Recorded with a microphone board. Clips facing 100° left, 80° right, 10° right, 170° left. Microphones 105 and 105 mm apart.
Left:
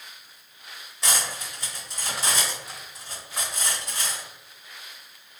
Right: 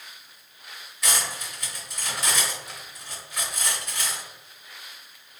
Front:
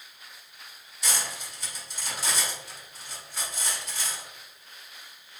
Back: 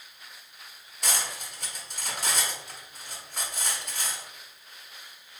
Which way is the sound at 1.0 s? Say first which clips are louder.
Even, back 1 dB; 150° left.